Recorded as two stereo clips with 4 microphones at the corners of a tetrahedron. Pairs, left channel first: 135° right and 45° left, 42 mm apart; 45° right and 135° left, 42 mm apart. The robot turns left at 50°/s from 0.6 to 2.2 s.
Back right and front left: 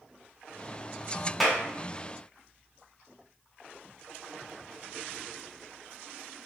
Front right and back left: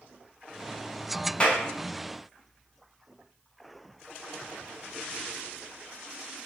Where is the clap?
45° right, 0.8 m; by 1.6 s 55° right, 0.8 m.